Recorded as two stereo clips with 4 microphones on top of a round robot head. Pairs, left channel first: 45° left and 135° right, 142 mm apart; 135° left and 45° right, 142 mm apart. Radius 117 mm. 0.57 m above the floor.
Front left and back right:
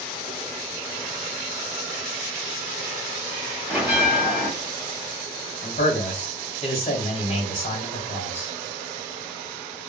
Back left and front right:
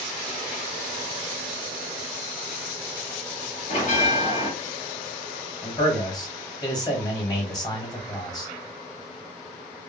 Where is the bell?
145° left, 1.8 m.